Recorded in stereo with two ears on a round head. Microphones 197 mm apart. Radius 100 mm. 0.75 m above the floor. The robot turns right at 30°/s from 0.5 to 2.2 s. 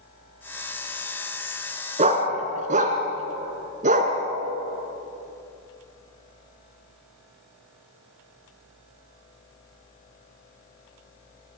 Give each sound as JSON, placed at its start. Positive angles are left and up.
{"t": 2.0, "sound": "a dog barking", "side_deg": -35, "distance_m": 3.0}